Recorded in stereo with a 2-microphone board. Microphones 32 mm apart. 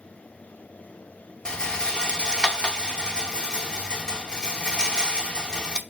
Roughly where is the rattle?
Left.